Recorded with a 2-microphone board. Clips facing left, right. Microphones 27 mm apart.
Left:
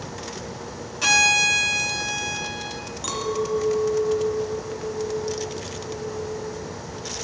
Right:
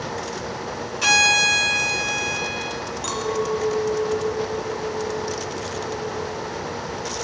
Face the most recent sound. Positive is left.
turn(degrees=-5)  # may be behind; listen again after turning